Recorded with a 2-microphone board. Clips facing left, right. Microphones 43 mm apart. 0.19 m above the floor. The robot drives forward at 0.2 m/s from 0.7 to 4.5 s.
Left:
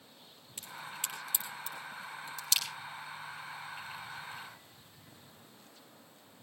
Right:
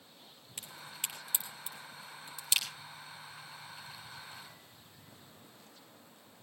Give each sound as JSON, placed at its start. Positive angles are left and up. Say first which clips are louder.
{"t": 0.6, "sound": "a crack", "louder": "left 2 dB", "side_deg": -15, "distance_m": 4.0}